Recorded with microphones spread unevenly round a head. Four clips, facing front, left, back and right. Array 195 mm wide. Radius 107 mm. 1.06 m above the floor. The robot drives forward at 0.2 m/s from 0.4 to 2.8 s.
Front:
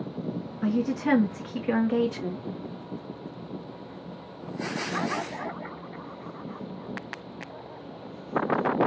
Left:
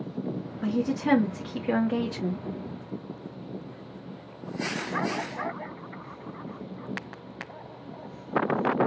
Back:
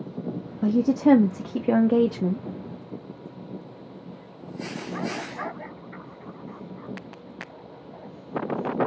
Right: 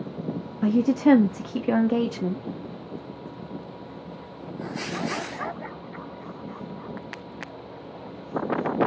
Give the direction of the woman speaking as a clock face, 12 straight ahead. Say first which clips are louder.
Right 8 dB, back 7 dB; 5 o'clock.